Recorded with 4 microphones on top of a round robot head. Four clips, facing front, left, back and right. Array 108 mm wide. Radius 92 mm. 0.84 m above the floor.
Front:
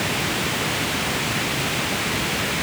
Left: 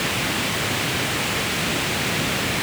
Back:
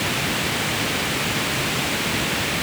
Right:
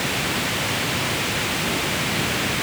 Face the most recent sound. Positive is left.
No sound to turn to.